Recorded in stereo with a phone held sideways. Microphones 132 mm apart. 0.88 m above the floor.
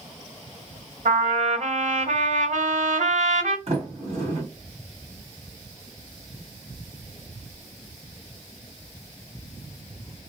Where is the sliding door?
55° right (ahead or behind), 1.5 m.